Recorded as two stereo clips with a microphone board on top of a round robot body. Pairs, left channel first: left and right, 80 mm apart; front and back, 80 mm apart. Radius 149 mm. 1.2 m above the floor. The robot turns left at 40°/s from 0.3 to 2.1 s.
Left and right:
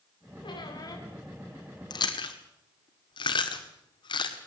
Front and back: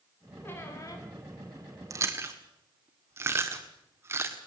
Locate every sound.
0.4 s a squeak: 65° left, 3.5 m; by 1.1 s 40° left, 3.5 m
1.9 s chewing: 125° left, 1.6 m; by 4.4 s 120° left, 1.6 m